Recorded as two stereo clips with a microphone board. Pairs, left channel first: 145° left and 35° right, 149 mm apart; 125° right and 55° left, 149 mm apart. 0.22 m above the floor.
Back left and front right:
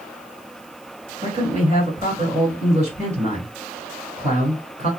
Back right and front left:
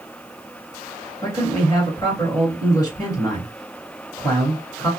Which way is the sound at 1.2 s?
65° right.